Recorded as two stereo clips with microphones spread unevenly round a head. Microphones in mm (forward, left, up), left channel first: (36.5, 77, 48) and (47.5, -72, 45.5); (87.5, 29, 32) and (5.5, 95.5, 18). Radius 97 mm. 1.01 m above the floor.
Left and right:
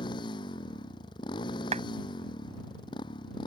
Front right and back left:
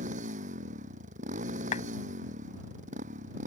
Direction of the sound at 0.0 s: 160° left.